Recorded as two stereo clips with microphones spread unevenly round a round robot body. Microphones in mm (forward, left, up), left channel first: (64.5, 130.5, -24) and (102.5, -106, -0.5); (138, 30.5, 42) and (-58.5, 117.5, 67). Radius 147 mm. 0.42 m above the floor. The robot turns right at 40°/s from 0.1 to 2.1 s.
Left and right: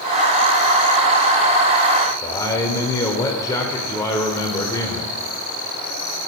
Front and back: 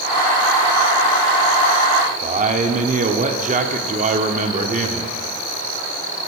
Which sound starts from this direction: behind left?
A man speaking, at 2.2 s.